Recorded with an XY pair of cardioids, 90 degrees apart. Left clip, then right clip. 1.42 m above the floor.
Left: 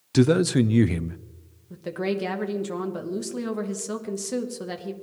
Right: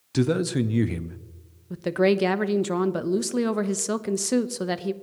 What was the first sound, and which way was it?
A man speaking, 30° left.